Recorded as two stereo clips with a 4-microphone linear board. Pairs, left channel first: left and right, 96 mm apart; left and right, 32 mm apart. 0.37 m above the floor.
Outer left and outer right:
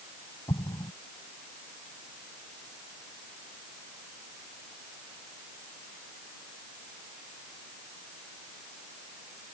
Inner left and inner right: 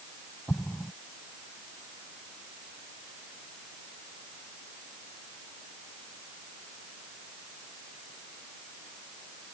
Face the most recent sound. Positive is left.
turn(degrees=55)  # may be behind; listen again after turning